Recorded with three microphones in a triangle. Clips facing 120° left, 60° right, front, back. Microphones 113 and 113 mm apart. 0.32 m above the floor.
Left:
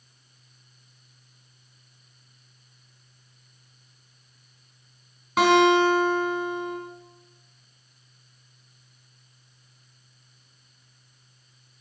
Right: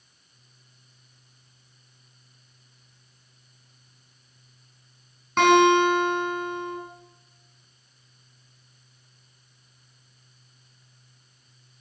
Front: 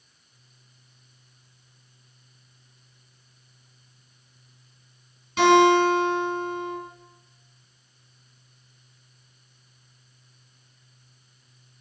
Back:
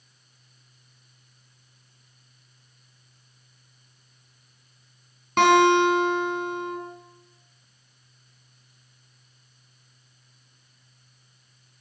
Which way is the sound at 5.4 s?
155° right.